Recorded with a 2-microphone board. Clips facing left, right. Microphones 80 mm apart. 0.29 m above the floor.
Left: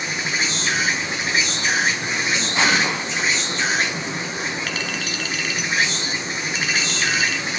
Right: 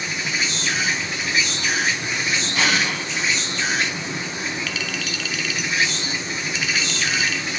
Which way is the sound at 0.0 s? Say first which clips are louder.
Left 1 dB; 35° left (ahead or behind).